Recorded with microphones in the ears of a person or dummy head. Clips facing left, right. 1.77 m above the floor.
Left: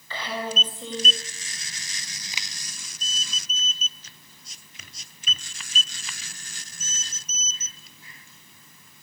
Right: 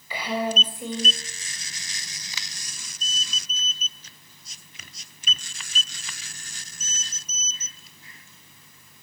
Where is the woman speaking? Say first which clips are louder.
Right 4 dB; 10° right (ahead or behind), 7.5 m.